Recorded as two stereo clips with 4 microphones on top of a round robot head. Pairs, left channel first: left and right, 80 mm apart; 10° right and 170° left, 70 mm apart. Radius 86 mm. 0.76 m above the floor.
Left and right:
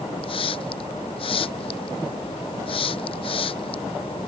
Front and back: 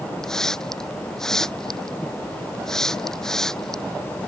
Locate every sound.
0.2 s a hiss: 75° left